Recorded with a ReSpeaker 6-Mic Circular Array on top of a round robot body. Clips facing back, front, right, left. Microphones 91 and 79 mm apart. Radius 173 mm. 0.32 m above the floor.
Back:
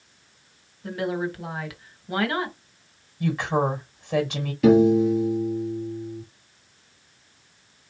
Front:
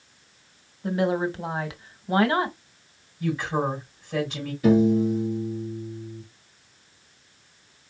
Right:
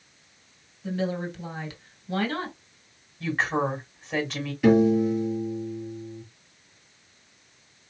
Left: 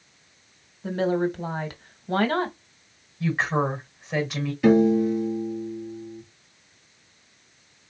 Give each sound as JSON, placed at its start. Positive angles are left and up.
{"t": 0.8, "sound": "a woman speaking", "azimuth_deg": 60, "distance_m": 1.5}
{"t": 3.2, "sound": "a woman speaking", "azimuth_deg": 175, "distance_m": 3.0}
{"t": 4.6, "sound": "a piano", "azimuth_deg": 180, "distance_m": 2.5}